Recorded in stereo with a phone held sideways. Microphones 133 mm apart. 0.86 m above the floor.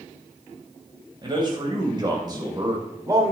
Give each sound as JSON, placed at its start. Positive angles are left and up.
{"t": 1.2, "sound": "a man speaking", "side_deg": -35, "distance_m": 4.0}